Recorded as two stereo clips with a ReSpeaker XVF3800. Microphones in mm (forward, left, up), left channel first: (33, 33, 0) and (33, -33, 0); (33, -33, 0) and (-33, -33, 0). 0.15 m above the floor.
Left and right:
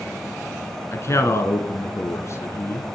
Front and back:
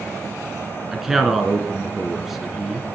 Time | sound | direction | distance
0.9 | a man speaking | 95° left | 1.4 m